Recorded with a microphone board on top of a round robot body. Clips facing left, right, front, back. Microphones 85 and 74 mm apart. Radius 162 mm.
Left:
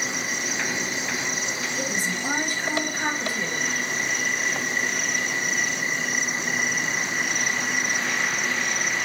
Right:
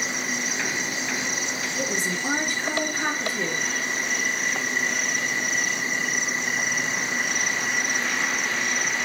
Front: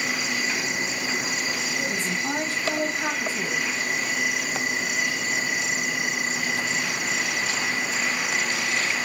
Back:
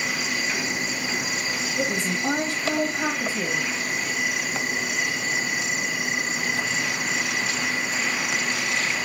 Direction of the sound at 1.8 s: 170° left.